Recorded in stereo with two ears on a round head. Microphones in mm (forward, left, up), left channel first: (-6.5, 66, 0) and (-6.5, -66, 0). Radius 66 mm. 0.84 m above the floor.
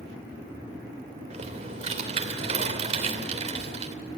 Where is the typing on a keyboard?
45° right (ahead or behind), 3 m.